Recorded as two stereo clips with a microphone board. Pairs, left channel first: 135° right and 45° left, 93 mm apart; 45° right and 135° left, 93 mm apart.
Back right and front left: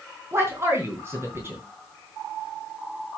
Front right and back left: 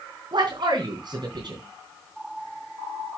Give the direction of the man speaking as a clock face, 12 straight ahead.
9 o'clock.